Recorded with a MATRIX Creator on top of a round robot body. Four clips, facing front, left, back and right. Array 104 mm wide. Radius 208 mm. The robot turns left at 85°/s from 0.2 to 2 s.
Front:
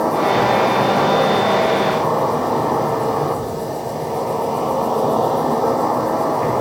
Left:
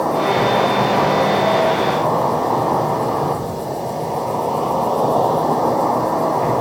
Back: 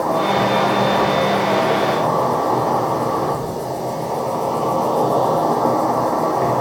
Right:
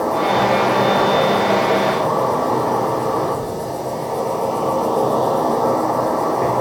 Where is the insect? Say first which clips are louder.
Even, front 1 dB; 5° left, 0.8 m; by 6.6 s 150° right, 0.8 m.